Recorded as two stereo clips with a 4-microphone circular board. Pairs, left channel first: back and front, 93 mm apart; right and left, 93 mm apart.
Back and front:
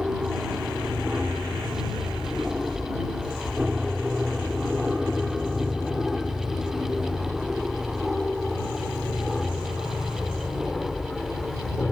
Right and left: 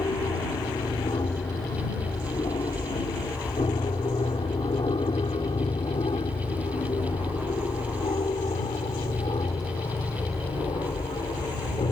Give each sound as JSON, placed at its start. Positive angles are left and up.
{"t": 0.0, "sound": "an aircraft", "azimuth_deg": -75}